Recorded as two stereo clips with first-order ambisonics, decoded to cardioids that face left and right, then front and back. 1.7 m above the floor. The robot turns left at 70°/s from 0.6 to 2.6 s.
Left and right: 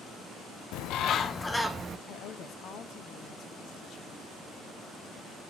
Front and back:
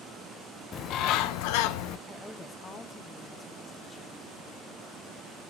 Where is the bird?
60° left, 0.6 m; by 2.0 s 25° right, 0.6 m.